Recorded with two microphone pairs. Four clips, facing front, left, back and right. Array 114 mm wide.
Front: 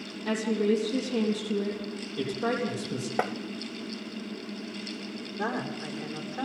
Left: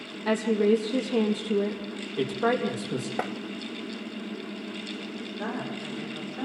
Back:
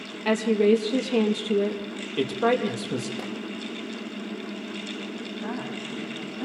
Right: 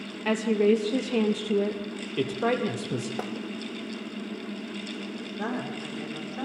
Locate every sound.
0.2 s a woman speaking: 145° right, 3.5 m
3.2 s tapping: 15° left, 1.2 m
5.4 s a woman speaking: 40° right, 8 m